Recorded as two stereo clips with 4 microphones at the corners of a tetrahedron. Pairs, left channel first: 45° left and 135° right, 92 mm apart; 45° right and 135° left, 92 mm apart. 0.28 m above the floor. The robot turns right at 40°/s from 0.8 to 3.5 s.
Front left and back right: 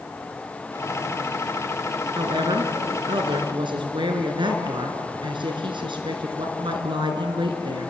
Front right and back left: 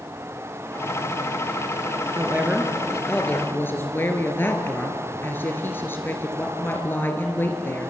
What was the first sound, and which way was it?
A woman speaking, 165° right.